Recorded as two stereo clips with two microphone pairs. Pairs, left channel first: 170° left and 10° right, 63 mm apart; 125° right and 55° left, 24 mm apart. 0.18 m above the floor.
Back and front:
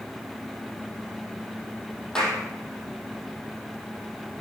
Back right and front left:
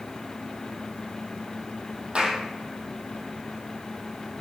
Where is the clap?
95° left, 4 m.